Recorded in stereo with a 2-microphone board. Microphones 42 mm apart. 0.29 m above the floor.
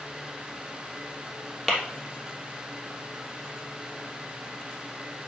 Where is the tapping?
10° left (ahead or behind), 3 m.